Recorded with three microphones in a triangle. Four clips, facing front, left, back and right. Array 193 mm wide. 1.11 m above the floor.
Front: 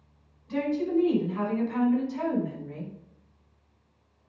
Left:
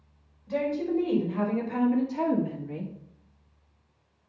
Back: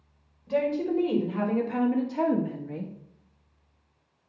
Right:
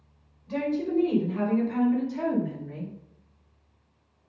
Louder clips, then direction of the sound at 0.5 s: Even, back 1 dB; 175° right.